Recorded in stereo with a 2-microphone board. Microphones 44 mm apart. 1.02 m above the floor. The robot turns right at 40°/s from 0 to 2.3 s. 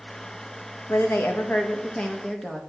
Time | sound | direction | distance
0.9 | a woman speaking | 110° left | 0.7 m